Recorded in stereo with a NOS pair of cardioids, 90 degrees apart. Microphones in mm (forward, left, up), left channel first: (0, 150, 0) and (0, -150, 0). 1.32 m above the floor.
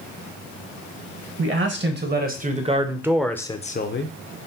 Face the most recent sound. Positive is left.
turn(degrees=50)